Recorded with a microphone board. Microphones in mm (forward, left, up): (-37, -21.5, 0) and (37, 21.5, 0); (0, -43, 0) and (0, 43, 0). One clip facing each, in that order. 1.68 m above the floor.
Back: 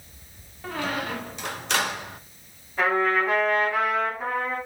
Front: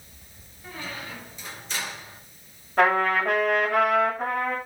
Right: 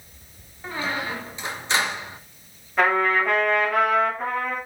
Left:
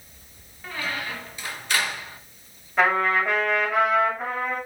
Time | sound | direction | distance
0.6 | a squeak | 155° right | 1.5 m
2.8 | a trumpet | straight ahead | 7.5 m